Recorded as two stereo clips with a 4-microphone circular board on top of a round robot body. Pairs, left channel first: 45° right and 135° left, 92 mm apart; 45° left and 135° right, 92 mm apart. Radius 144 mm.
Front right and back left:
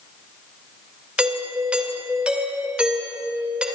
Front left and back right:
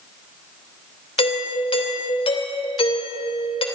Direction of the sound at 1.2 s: 55° left.